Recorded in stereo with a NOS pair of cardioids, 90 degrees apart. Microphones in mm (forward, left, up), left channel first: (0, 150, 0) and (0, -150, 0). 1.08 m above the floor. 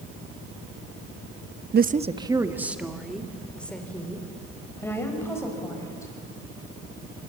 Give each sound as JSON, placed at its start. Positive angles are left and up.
{"t": 1.7, "sound": "a woman speaking", "azimuth_deg": -35, "distance_m": 0.8}